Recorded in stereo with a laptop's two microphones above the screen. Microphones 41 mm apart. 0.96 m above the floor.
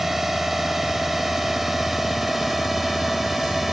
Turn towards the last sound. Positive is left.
turn(degrees=-5)  # may be behind; listen again after turning